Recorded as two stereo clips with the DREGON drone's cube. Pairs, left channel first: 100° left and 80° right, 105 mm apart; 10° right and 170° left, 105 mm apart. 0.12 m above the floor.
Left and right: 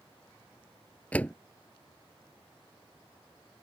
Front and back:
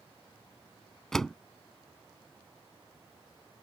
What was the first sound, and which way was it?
A door slam, 65° left.